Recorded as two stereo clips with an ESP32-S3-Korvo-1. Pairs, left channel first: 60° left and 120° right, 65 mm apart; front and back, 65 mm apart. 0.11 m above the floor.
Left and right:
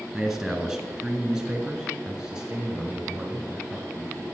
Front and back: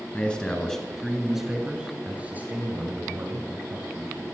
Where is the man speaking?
40° right, 1.7 m; by 4.2 s 170° left, 2.5 m.